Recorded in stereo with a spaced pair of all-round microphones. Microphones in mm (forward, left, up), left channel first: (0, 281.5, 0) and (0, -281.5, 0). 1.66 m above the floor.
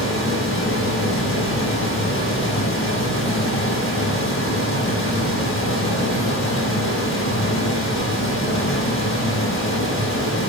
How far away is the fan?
About 1.2 m.